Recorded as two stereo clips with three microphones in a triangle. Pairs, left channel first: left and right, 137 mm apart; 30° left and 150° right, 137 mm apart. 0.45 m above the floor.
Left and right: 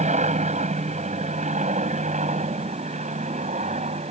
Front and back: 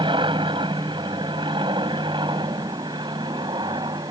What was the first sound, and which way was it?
An aircraft, 105° right.